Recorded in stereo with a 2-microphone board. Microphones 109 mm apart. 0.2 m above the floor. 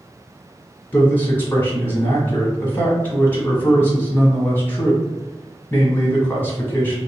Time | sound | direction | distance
0.9 | a man speaking | 20° left (ahead or behind) | 1.1 m